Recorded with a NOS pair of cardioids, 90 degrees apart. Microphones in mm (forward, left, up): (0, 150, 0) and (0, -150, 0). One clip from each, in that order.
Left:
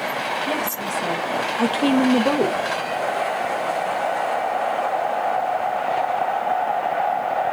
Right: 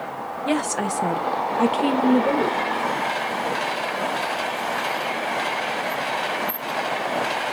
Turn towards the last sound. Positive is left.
turn(degrees=55)